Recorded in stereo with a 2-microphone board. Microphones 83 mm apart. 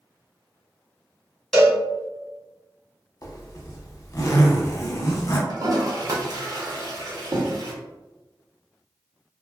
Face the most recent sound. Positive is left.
turn(degrees=-50)  # may be behind; listen again after turning